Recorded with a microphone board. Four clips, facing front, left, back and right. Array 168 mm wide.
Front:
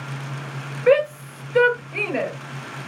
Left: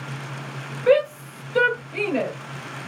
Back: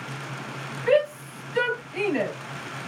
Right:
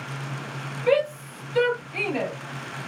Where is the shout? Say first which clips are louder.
Left 4 dB, front 4 dB; 35° left, 4 m.